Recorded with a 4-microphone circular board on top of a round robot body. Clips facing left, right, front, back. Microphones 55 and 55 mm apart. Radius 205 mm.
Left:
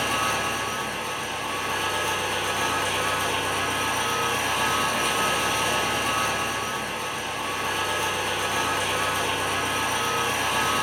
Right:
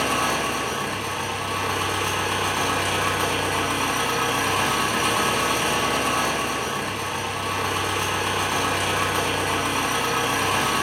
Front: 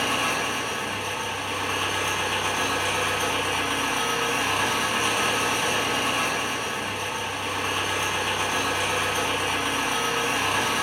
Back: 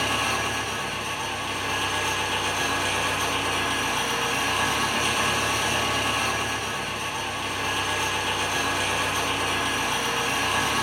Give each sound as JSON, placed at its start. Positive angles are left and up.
{"t": 0.0, "sound": "an engine running", "azimuth_deg": -60, "distance_m": 0.8}